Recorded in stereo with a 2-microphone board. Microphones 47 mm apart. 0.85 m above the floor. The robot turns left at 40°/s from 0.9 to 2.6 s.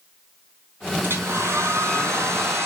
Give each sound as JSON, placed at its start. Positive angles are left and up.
{"t": 1.0, "sound": "a hair dryer", "azimuth_deg": -50, "distance_m": 4.0}